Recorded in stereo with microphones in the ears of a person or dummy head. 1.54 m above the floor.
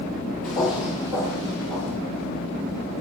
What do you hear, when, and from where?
0.4 s footsteps: 10° left (ahead or behind), 1.7 m; by 2.0 s 45° right (ahead or behind), 2 m